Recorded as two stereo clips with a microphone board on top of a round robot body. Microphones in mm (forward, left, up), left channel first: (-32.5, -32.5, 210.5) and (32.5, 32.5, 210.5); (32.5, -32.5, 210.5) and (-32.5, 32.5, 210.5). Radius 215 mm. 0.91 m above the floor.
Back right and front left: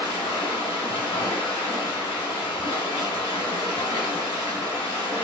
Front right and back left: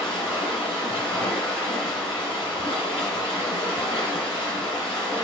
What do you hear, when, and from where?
0.0 s running water: 75° right, 0.8 m